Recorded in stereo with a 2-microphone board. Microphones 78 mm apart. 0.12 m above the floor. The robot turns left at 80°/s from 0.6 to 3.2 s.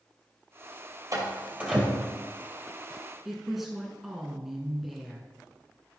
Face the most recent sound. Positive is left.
turn(degrees=-5)  # may be behind; listen again after turning